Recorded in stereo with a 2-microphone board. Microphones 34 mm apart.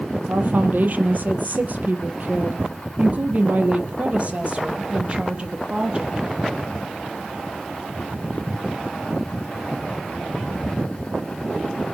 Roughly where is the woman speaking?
Right.